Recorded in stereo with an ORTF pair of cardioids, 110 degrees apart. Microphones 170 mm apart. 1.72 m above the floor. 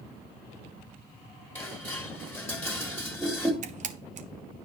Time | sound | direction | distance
1.6 | dishes clattering | 10° left | 2.5 m
3.6 | a camera shutter | 45° right | 1.2 m